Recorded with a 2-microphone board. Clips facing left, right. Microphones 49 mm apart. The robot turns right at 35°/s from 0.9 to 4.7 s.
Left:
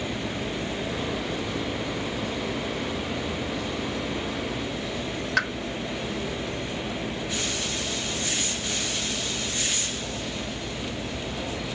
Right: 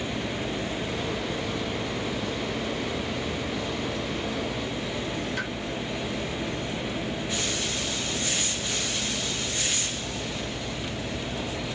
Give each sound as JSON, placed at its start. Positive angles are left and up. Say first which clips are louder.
{"t": 5.4, "sound": "a pop", "louder": "left 7 dB", "side_deg": 80, "distance_m": 0.9}